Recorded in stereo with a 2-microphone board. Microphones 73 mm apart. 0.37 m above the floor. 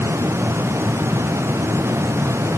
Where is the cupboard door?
No cupboard door in this recording.